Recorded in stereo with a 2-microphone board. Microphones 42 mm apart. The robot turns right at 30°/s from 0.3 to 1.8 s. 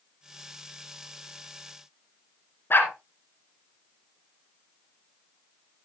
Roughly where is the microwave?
No microwave in this recording.